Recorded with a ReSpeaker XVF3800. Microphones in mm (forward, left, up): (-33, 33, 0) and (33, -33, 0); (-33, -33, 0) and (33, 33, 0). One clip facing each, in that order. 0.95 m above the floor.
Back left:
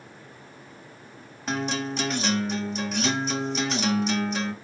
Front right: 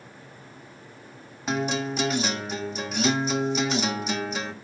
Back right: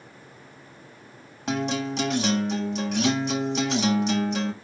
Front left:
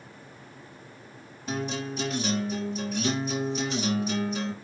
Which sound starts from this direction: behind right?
A guitar, at 1.5 s.